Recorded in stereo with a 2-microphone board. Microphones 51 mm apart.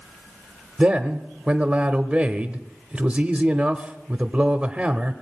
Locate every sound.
0.8 s a man speaking: 25° right (ahead or behind), 0.8 m